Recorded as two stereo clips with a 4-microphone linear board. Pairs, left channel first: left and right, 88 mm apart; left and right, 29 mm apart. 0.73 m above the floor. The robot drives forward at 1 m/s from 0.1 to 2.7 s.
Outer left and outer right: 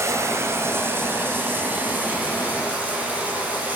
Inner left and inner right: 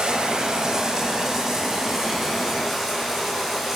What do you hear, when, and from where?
0.0 s running water: 30° right (ahead or behind), 3 m; by 3.8 s 15° right (ahead or behind), 5.5 m